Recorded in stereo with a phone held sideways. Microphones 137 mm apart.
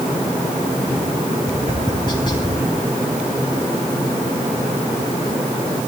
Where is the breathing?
I don't hear breathing.